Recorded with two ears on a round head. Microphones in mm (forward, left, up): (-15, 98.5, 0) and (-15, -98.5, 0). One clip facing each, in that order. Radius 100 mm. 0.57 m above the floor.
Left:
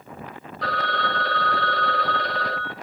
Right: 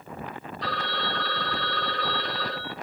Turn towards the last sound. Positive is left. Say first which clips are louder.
# left 5 dB
turn(degrees=45)  # may be behind; listen again after turning